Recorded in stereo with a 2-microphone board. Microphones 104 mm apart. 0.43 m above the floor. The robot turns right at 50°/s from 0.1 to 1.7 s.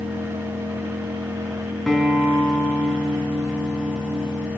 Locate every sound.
0.0 s an engine running: 105° right, 4 m; by 4.6 s 25° right, 4 m
1.9 s a guitar: 5° left (ahead or behind), 4.5 m